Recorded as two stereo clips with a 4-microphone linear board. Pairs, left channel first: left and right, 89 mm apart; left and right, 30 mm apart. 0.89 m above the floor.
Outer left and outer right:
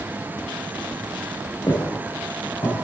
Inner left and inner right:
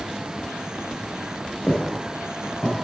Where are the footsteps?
50° left (ahead or behind), 5.5 m; by 2.8 s 45° left (ahead or behind), 7 m.